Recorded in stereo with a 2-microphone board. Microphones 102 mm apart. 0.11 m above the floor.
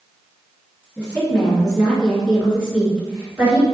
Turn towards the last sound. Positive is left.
turn(degrees=-25)  # may be behind; listen again after turning